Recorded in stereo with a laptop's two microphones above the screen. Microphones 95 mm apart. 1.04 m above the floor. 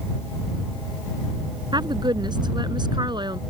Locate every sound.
1.7 s a woman speaking: 50° right (ahead or behind)